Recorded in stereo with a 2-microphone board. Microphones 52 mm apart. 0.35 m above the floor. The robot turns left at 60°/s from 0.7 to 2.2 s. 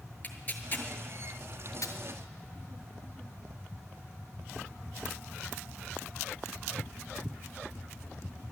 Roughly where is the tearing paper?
Left.